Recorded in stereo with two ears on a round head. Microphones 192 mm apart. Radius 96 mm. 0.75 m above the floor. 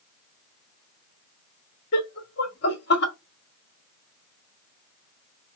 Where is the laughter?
50° left (ahead or behind), 1.4 m.